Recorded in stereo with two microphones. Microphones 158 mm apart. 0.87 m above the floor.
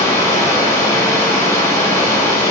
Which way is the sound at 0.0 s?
20° left (ahead or behind).